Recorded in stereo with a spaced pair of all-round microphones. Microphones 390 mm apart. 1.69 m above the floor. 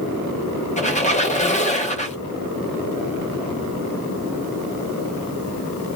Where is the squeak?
20° left (ahead or behind), 0.8 m.